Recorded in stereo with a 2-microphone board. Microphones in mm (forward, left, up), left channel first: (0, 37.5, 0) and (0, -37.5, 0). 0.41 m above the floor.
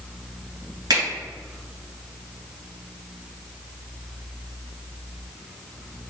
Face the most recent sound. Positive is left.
turn(degrees=-65)  # may be behind; listen again after turning